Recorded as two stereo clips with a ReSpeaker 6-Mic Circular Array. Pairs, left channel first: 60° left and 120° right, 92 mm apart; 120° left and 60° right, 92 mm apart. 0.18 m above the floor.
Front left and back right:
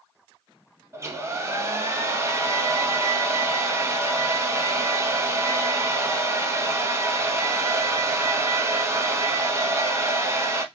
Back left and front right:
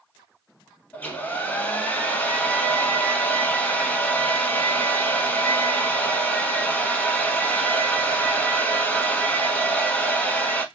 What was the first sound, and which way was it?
A hair dryer, 170° right.